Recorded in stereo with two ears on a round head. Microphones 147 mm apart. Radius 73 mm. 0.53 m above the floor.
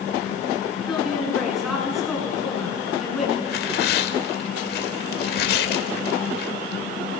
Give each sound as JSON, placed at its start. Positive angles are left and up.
{"t": 0.9, "sound": "a woman speaking", "side_deg": 0, "distance_m": 7.5}
{"t": 3.5, "sound": "tearing paper", "side_deg": 65, "distance_m": 1.9}